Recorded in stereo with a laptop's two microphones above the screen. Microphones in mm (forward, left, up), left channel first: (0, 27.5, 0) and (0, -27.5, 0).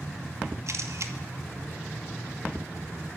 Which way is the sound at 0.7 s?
65° right (ahead or behind).